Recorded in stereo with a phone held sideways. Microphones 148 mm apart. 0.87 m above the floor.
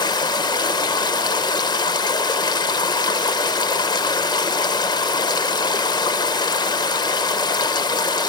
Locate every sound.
0.0 s running water: 30° left (ahead or behind), 1.6 m